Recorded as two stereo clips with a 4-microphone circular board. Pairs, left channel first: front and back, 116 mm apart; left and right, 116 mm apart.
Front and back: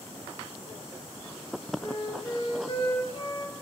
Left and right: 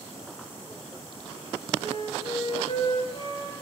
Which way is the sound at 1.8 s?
55° left.